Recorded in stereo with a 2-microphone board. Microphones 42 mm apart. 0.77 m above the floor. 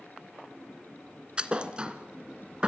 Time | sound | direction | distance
1.4 | a thud | 25° right (ahead or behind) | 2.0 m